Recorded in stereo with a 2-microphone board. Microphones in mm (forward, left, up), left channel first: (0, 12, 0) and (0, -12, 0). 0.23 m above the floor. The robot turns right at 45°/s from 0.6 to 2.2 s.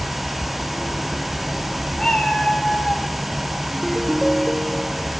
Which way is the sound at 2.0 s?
20° left (ahead or behind).